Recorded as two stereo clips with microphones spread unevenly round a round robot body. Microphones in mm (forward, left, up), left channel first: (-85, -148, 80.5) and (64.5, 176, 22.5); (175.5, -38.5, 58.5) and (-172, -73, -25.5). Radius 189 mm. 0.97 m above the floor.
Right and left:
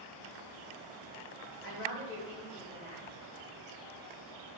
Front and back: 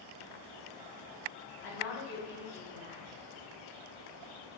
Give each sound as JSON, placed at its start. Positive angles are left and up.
{"t": 1.6, "sound": "a woman speaking", "azimuth_deg": -60, "distance_m": 1.1}